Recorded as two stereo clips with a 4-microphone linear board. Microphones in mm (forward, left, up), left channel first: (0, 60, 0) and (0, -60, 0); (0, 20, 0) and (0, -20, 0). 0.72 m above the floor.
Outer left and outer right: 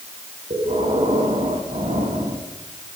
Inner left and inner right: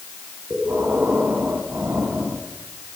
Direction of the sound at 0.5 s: 65° right (ahead or behind).